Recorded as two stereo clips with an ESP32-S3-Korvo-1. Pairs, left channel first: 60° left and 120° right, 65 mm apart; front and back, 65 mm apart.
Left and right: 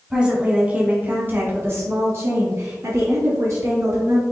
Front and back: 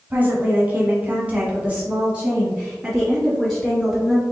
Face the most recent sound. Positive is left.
turn(degrees=-100)